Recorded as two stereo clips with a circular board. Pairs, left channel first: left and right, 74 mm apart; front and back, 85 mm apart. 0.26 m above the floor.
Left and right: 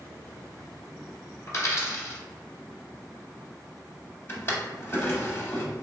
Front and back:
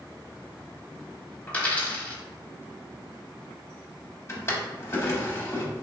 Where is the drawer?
45° left, 0.7 m.